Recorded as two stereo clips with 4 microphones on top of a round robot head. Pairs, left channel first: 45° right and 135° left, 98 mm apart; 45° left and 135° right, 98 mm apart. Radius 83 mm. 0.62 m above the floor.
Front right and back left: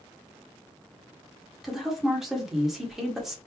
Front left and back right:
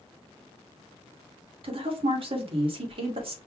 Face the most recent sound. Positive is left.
turn(degrees=-140)